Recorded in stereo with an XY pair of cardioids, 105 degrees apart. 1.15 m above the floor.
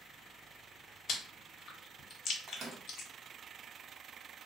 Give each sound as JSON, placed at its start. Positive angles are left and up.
{"t": 1.1, "sound": "chewing", "azimuth_deg": 65, "distance_m": 0.7}
{"t": 2.5, "sound": "a microwave", "azimuth_deg": -60, "distance_m": 0.9}